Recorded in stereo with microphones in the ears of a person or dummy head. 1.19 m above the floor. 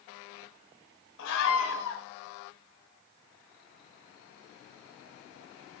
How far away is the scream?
About 6 m.